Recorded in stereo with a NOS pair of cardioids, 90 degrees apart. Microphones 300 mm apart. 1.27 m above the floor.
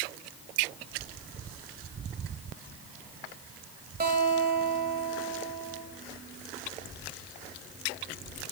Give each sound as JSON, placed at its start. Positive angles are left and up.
{"t": 4.0, "sound": "a guitar", "azimuth_deg": -35, "distance_m": 1.6}